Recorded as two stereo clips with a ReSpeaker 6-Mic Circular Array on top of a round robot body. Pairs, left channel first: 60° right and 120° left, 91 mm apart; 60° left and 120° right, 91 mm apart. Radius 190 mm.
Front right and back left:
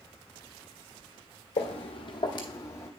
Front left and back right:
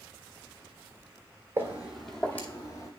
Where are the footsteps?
50° right, 0.7 m; by 2.9 s 5° left, 0.9 m.